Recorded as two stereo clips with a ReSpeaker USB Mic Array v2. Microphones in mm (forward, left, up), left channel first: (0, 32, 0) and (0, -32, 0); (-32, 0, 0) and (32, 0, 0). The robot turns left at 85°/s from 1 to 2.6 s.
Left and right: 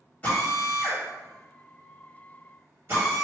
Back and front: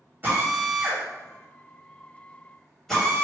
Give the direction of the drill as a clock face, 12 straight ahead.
11 o'clock.